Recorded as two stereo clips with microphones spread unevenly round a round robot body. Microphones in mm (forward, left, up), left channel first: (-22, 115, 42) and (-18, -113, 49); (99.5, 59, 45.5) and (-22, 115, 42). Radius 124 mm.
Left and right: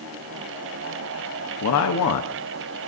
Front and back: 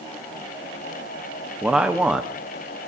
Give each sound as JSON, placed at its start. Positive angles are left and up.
{"t": 1.6, "sound": "a man speaking", "azimuth_deg": 75, "distance_m": 1.1}